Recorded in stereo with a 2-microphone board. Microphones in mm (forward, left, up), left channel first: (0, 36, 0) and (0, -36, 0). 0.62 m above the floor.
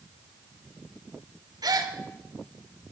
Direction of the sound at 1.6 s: 65° right (ahead or behind).